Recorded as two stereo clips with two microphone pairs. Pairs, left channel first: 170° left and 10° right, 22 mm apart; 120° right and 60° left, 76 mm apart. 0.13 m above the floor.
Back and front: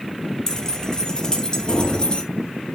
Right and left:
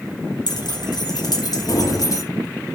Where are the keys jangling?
130° right, 2.5 m; by 2.2 s 155° right, 2 m.